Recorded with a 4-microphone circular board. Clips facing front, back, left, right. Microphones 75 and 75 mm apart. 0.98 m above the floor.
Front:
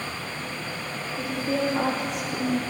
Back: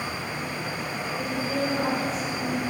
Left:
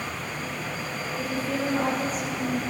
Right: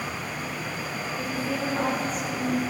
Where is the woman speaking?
Straight ahead, 2 m.